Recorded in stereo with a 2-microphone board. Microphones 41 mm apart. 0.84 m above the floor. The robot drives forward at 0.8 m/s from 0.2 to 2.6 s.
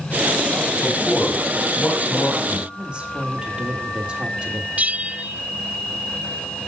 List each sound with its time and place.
0.8 s a man speaking: 45° left (ahead or behind), 5 m; by 2.6 s 60° left (ahead or behind), 4 m
2.8 s a woman speaking: 25° right (ahead or behind), 3 m
4.8 s a bell: 35° right (ahead or behind), 0.8 m